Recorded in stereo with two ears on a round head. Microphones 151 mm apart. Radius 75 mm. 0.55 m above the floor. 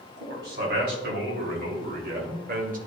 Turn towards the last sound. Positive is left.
turn(degrees=-50)  # may be behind; listen again after turning